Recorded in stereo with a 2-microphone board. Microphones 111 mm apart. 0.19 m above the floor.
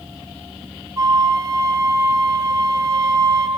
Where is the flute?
35° right (ahead or behind), 1.3 m.